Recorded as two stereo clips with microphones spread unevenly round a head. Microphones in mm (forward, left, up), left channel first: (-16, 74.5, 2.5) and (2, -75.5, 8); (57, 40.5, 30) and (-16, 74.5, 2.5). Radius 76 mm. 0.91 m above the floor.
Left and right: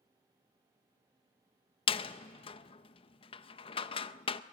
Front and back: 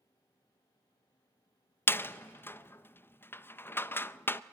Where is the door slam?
50° left, 0.6 m.